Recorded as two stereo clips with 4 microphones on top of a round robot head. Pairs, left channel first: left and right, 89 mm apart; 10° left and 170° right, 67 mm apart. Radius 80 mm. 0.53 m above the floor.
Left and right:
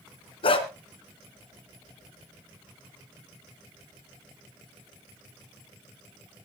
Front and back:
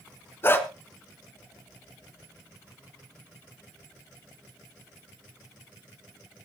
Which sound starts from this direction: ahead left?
A dog barking, at 0.4 s.